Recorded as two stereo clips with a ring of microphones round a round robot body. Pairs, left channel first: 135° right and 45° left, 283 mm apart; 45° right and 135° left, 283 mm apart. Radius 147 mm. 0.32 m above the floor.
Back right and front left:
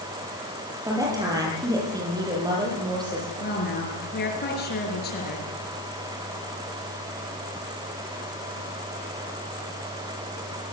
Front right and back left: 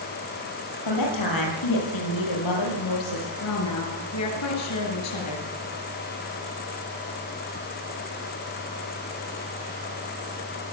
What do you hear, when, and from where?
0.8 s a woman speaking: 35° right, 9.5 m; by 3.3 s 30° right, 11 m
3.4 s a woman speaking: 80° right, 6 m